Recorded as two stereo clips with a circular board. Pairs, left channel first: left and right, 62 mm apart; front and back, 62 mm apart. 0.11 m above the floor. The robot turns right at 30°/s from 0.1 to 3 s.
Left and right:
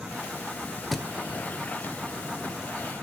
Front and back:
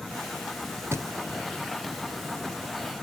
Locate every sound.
0.9 s a thud: 175° left, 0.9 m; by 1.1 s straight behind, 0.9 m